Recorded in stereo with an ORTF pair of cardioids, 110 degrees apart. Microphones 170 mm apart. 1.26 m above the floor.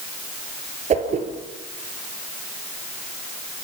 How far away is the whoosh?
About 3.5 m.